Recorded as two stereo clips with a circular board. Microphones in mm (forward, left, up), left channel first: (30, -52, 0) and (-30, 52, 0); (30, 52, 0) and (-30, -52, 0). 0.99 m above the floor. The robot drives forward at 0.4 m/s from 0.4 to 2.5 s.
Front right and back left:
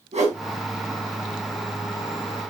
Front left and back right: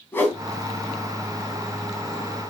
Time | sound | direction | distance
0.1 | a whoosh | 135° left | 2.5 m